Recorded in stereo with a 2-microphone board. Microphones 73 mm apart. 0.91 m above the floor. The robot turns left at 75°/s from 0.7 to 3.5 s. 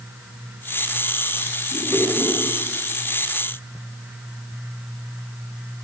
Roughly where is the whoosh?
Centre.